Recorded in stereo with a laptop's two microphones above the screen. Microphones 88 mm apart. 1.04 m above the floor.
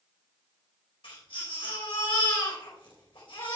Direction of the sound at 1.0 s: 85° left.